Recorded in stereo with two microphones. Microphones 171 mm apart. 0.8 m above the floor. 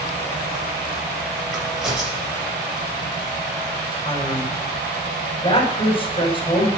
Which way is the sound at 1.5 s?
5° right (ahead or behind).